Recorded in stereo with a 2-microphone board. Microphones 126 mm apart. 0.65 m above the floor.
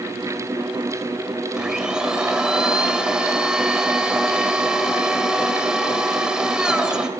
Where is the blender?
5° right (ahead or behind), 2.5 m.